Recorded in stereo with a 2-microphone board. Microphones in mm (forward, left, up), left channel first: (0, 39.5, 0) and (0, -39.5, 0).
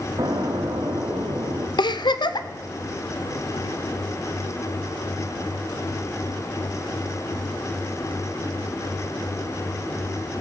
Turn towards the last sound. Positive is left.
turn(degrees=70)  # may be behind; listen again after turning